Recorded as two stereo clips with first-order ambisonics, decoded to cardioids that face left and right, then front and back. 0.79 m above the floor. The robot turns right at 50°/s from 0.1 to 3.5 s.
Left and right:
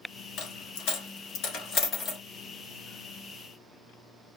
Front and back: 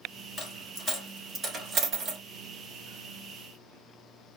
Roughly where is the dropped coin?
Ahead left.